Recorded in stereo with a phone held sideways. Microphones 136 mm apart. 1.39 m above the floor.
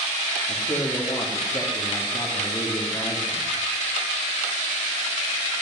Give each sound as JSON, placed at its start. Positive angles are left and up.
{"t": 0.5, "sound": "a man speaking", "side_deg": 30, "distance_m": 2.5}